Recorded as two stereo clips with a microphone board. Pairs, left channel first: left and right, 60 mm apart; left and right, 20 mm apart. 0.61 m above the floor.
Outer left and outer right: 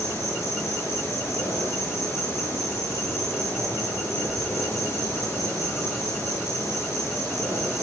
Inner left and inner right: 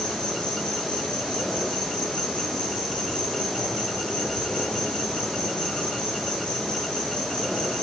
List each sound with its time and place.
0.0 s an insect: 45° left (ahead or behind), 9.5 m